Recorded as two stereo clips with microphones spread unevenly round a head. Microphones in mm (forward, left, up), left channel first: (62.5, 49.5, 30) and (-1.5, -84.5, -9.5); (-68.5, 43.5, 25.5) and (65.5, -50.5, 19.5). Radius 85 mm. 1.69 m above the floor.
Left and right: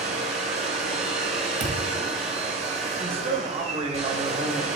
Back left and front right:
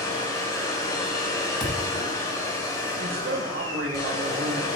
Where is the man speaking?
65° right, 1.2 m.